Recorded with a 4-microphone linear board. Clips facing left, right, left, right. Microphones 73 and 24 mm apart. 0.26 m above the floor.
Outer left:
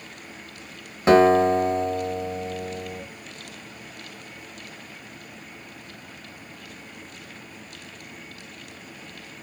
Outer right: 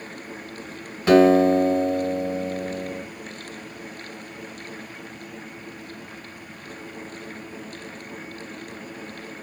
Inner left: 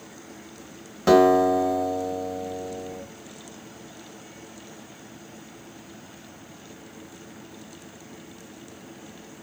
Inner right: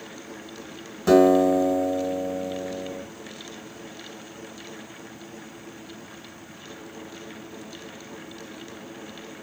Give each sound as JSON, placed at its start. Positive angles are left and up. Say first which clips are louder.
{"t": 1.1, "sound": "a guitar", "louder": "outer right 1 dB, even", "side_deg": 30, "distance_m": 2.0}